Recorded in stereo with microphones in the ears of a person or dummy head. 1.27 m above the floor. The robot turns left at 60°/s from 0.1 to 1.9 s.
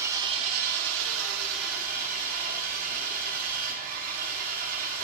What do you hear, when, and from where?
0.0 s an engine running: 20° right, 2.5 m; by 5.0 s 125° right, 2.5 m